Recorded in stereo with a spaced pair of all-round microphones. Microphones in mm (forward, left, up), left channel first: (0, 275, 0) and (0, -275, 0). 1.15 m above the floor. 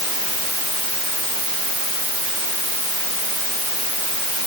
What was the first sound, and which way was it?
Only background noise.